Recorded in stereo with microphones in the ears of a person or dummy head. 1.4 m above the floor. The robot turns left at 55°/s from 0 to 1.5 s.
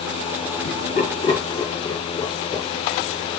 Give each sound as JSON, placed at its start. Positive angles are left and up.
{"t": 0.6, "sound": "laughter", "side_deg": 65, "distance_m": 4.0}